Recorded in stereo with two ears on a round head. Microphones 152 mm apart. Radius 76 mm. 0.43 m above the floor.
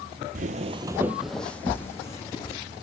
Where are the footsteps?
50° right (ahead or behind), 0.6 m; by 2.6 s 20° left (ahead or behind), 1.6 m.